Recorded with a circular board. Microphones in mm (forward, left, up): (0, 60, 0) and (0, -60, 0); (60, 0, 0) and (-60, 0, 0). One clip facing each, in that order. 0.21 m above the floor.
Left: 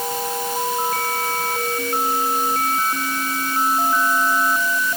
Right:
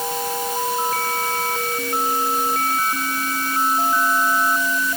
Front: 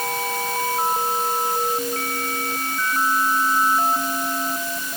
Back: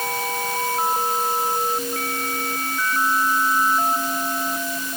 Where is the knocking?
No knocking in this recording.